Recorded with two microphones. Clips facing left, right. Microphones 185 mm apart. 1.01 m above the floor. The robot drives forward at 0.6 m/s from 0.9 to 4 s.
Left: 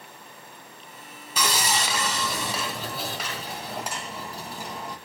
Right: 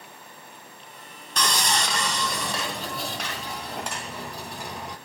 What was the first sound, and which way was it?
Sawing, 5° left (ahead or behind).